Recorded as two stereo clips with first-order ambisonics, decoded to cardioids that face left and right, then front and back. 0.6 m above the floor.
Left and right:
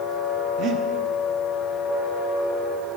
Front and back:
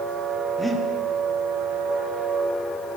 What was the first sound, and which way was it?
Breathing, 90° right.